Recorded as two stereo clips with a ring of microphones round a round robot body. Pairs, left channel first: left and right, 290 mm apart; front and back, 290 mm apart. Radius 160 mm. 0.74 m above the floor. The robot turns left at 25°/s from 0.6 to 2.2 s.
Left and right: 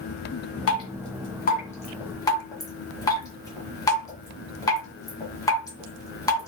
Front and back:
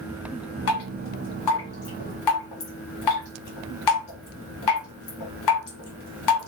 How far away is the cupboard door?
No cupboard door in this recording.